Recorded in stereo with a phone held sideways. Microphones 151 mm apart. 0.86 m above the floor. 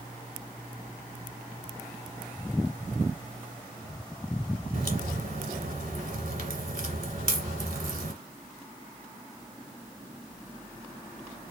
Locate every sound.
4.7 s a crack: 65° right (ahead or behind), 1.8 m